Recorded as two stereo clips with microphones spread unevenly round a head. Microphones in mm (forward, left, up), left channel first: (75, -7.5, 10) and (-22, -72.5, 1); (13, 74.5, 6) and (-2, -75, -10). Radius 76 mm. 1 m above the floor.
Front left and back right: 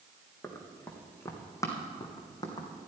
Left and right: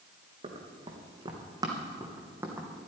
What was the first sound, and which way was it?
Running footsteps, 40° right.